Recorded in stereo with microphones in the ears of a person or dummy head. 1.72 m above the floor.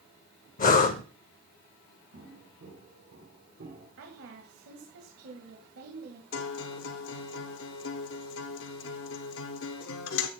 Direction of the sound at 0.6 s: 40° left (ahead or behind).